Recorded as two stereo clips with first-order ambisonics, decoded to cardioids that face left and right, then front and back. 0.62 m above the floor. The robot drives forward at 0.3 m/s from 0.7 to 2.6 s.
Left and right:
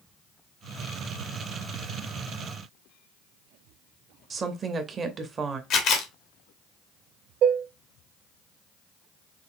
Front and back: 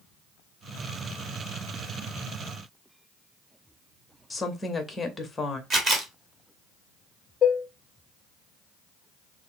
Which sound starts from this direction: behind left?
A camera shutter, at 5.7 s.